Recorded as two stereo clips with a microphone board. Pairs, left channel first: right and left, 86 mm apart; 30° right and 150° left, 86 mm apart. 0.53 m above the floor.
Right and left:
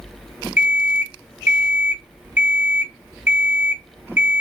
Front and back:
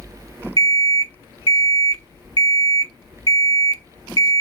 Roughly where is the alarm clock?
Behind left.